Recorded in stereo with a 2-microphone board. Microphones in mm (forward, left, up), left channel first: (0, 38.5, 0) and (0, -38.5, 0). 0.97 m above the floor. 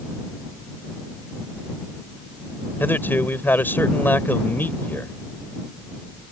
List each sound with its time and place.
2.8 s a man speaking: 25° left (ahead or behind)